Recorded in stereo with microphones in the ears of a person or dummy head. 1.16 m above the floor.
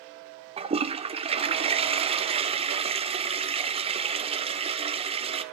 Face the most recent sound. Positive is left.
turn(degrees=-30)  # may be behind; listen again after turning